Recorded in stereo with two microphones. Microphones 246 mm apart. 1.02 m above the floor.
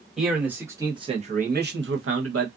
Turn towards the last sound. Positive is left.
turn(degrees=-70)  # may be behind; listen again after turning